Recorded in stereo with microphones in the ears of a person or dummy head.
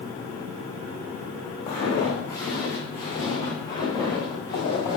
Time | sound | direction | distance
1.7 | footsteps | 25° left (ahead or behind) | 4 m